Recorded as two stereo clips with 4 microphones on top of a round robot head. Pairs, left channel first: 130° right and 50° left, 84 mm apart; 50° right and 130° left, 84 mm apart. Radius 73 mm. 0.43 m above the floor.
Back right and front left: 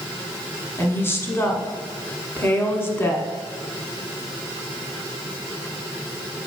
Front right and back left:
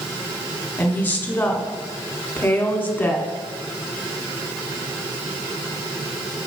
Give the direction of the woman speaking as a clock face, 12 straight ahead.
3 o'clock.